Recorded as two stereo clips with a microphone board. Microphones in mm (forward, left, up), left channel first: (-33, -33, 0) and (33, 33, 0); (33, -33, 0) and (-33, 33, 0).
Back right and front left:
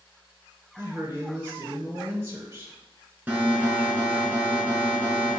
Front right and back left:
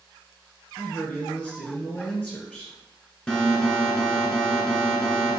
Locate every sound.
0.8 s a man speaking: 15° left, 1.4 m
3.3 s an alarm: 20° left, 0.9 m